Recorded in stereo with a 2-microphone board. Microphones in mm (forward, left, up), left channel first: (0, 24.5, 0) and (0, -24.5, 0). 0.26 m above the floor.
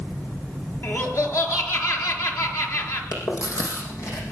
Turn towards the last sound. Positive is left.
turn(degrees=75)  # may be behind; listen again after turning